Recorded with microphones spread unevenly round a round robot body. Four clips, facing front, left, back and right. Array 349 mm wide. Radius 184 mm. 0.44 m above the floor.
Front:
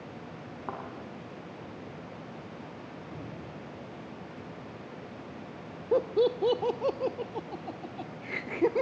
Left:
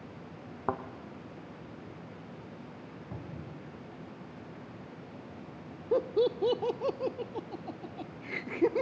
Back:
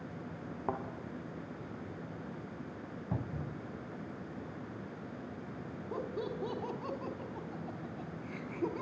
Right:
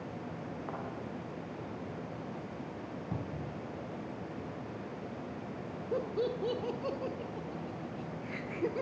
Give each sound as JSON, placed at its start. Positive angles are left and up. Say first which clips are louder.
{"t": 0.7, "sound": "a thud", "louder": "left 10 dB, back 2 dB", "azimuth_deg": 110, "distance_m": 1.2}
{"t": 3.1, "sound": "a cupboard door", "louder": "right 3 dB, back 4 dB", "azimuth_deg": -150, "distance_m": 3.5}
{"t": 5.9, "sound": "laughter", "louder": "left 6 dB, front 14 dB", "azimuth_deg": 60, "distance_m": 1.4}